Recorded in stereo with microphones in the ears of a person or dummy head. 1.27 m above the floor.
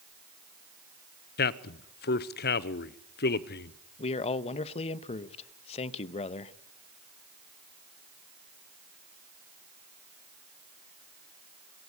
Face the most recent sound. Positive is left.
turn(degrees=30)  # may be behind; listen again after turning